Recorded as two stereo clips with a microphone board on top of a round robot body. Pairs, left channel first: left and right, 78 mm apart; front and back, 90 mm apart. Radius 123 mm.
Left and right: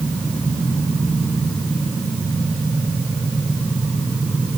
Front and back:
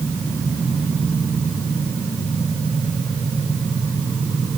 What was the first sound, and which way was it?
Only background noise.